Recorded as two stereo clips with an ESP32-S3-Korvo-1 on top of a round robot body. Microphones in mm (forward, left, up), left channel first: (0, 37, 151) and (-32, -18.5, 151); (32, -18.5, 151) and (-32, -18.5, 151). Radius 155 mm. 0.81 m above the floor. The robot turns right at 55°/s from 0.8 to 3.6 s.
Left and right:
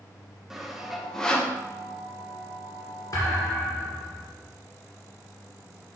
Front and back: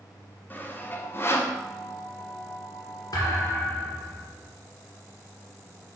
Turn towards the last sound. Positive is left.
turn(degrees=50)